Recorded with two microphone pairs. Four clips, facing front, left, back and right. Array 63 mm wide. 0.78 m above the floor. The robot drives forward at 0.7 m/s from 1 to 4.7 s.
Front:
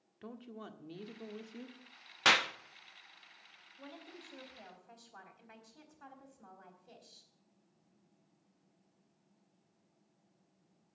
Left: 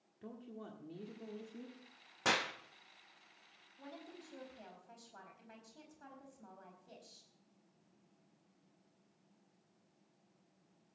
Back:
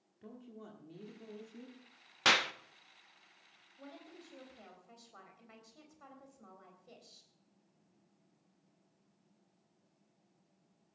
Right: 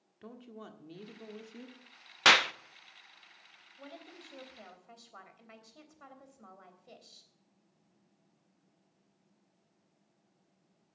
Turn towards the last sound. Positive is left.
turn(degrees=-95)